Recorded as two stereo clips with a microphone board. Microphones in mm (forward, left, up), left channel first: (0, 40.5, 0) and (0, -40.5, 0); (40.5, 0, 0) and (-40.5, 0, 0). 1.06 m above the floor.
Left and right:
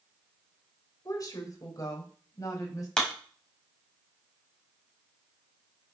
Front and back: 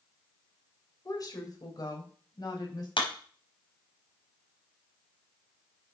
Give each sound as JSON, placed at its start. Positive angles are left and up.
{"t": 1.1, "sound": "a woman speaking", "azimuth_deg": 45, "distance_m": 4.0}
{"t": 3.0, "sound": "a clap", "azimuth_deg": 10, "distance_m": 4.5}